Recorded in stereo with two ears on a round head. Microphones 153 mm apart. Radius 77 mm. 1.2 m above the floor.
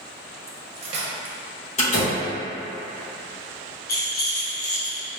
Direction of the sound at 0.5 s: 40° right (ahead or behind).